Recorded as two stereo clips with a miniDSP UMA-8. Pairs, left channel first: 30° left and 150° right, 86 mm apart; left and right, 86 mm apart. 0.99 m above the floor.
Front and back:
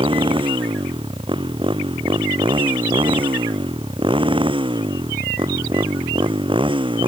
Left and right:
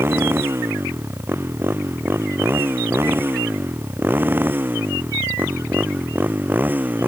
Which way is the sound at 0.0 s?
155° right.